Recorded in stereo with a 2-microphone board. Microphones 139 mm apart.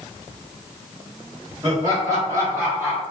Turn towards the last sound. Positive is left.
turn(degrees=-15)  # may be behind; listen again after turning